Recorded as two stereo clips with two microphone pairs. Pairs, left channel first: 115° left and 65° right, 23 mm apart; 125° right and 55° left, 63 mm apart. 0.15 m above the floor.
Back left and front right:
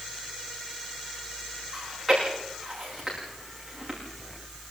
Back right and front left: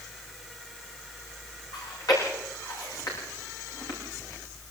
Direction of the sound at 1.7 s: 150° right.